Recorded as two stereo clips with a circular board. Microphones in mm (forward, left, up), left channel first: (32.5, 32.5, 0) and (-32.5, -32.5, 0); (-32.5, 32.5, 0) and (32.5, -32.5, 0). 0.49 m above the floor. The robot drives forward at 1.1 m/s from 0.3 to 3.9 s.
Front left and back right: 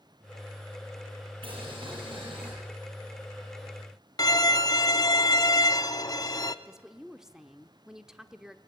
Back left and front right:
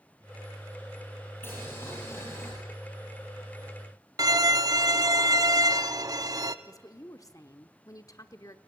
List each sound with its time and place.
1.4 s boiling: 160° right, 7.5 m
4.2 s a violin: straight ahead, 0.7 m
6.7 s a woman speaking: 145° left, 1.0 m